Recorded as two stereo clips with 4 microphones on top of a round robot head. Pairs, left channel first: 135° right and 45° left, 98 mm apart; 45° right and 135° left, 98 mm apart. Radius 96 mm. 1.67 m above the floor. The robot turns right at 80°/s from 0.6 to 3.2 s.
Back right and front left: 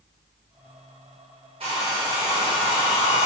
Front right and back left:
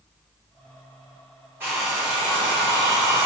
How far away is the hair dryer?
About 0.9 m.